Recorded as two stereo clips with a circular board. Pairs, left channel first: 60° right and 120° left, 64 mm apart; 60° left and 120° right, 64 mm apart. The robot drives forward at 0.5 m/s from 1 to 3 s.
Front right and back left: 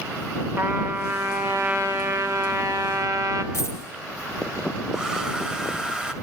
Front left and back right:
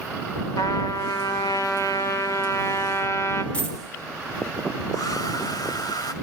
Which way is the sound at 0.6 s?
70° left.